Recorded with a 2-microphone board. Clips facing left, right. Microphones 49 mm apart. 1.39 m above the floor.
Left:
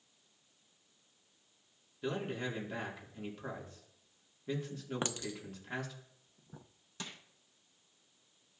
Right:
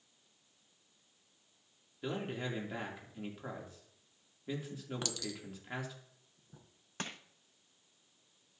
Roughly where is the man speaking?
Centre.